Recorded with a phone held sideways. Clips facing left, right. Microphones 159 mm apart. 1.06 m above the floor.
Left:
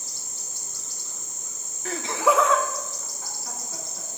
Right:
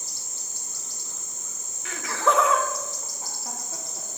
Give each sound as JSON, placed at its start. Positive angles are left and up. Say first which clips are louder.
{"t": 1.9, "sound": "laughter", "louder": "left 2 dB", "side_deg": 40, "distance_m": 0.7}